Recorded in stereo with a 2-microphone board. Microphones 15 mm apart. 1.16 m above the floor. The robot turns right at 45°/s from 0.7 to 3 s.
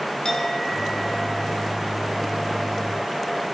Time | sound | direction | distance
0.2 | a clink | 135° left | 5 m